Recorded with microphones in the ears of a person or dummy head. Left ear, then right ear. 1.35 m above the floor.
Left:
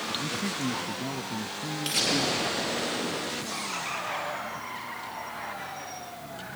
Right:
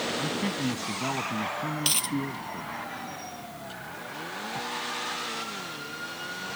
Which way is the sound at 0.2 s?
40° right (ahead or behind).